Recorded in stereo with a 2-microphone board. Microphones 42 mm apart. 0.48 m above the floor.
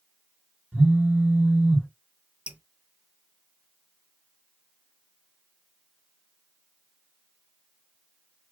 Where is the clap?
No clap in this recording.